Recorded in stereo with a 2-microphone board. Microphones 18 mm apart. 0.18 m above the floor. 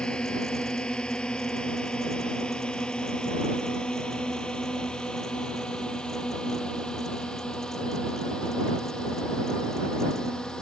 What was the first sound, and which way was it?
A drone, 70° left (ahead or behind).